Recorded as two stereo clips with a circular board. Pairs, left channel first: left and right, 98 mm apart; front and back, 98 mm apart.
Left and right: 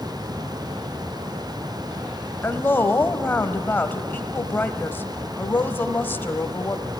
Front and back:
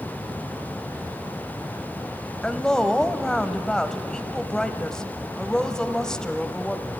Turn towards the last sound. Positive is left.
turn(degrees=70)